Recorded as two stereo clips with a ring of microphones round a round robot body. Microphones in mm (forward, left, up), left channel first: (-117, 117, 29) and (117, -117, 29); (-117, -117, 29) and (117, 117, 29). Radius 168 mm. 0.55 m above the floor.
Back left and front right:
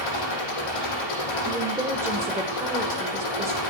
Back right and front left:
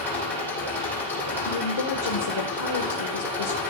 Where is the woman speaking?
130° right, 1.6 m.